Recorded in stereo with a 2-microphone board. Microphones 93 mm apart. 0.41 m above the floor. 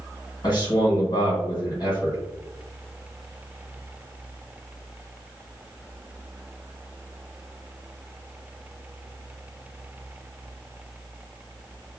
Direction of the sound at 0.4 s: 50° left (ahead or behind).